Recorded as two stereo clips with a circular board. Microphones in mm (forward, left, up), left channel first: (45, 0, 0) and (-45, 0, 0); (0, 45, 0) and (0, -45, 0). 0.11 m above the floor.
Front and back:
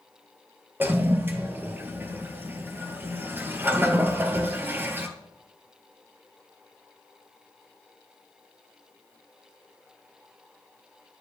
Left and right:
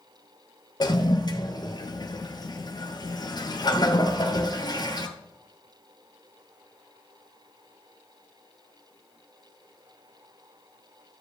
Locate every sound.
0.8 s a toilet flushing: 115° left, 1.1 m